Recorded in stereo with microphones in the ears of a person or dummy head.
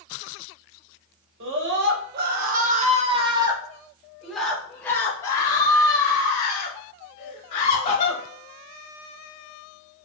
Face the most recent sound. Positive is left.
turn(degrees=35)  # may be behind; listen again after turning